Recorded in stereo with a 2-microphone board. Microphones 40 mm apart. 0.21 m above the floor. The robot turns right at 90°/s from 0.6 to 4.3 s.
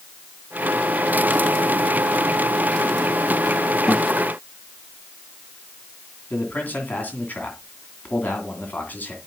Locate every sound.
3.9 s a guitar: 10° right (ahead or behind), 1.4 m; by 4.2 s 25° right (ahead or behind), 1.4 m
6.3 s a man speaking: 40° left (ahead or behind), 2.5 m